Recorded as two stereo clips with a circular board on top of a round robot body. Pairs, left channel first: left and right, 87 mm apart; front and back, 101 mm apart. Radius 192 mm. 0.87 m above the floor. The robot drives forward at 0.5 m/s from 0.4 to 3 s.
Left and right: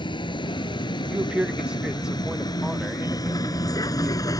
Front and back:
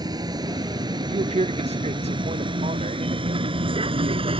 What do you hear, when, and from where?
0.0 s a vehicle: 130° left; by 4.4 s 145° left
1.1 s a man speaking: 165° right; by 4.3 s 175° right